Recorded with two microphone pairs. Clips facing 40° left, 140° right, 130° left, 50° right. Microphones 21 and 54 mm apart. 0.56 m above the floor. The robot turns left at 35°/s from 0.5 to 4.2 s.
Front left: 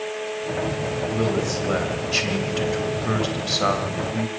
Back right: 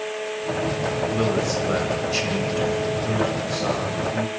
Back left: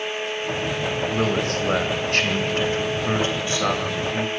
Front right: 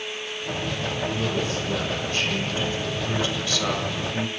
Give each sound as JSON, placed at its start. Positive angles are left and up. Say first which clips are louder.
{"t": 1.1, "sound": "a man speaking", "louder": "even, back left 4 dB", "azimuth_deg": 155, "distance_m": 3.0}